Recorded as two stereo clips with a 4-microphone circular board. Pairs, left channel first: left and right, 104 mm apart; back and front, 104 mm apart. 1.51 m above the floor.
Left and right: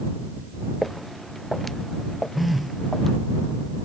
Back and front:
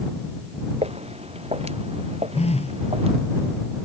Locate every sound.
0.8 s footsteps: straight ahead; by 3.2 s 5° left
2.3 s a phone buzzing: straight behind